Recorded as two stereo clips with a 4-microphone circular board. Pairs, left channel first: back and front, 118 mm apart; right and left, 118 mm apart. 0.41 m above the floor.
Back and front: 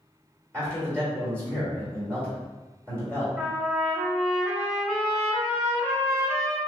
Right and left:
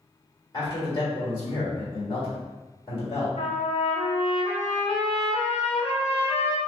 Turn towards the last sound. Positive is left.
turn(degrees=-90)